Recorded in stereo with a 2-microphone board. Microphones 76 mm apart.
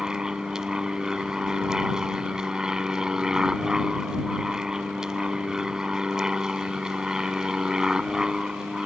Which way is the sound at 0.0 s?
10° right (ahead or behind).